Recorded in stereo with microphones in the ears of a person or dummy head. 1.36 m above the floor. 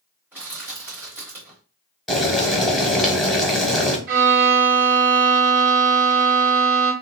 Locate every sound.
0.3 s crushing: 10° right (ahead or behind), 1.2 m
2.1 s boiling: centre (ahead or behind), 1.1 m
4.1 s a violin: 60° right (ahead or behind), 1.7 m